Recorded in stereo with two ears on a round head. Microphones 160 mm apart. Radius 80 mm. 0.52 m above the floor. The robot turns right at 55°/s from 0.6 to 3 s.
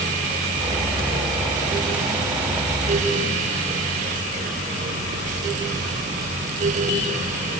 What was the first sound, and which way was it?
Only background noise.